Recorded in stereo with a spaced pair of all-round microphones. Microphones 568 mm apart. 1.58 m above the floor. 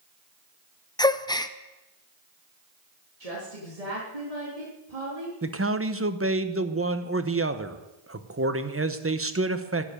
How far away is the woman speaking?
About 3.5 m.